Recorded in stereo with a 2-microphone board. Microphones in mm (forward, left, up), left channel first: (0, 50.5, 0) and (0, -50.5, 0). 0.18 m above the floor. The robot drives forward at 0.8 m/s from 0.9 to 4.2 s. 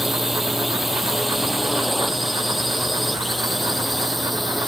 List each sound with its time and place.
0.0 s a drone: 5° right (ahead or behind); by 4.7 s centre (ahead or behind)